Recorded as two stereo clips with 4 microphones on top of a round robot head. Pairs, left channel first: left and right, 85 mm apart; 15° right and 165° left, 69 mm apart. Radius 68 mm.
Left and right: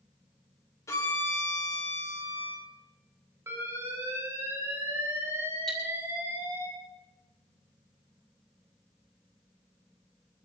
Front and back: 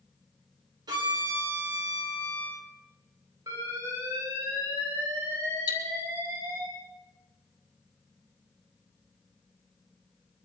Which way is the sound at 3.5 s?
150° right.